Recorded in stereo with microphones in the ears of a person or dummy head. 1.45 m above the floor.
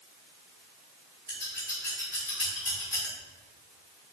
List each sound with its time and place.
1.3 s scissors: 15° right (ahead or behind), 1.3 m